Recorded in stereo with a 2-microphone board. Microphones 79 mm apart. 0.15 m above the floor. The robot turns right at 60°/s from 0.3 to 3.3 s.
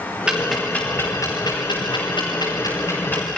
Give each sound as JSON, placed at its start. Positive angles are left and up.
{"t": 0.3, "sound": "ticking", "side_deg": -10, "distance_m": 8.0}